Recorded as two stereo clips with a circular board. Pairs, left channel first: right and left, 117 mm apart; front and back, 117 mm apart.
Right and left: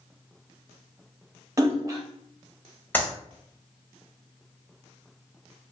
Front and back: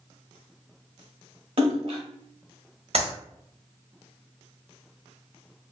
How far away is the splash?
About 0.7 m.